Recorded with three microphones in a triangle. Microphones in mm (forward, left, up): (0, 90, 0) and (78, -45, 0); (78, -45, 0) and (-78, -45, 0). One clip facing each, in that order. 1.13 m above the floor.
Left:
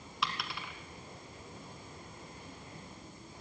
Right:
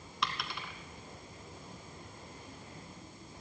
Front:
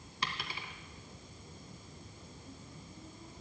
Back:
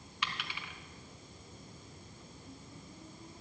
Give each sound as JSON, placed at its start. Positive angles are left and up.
{"t": 0.2, "sound": "a dropped coin", "azimuth_deg": 30, "distance_m": 1.4}